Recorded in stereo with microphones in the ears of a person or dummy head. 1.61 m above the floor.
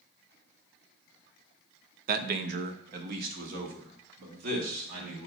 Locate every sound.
2.1 s a man speaking: 55° right (ahead or behind), 0.6 m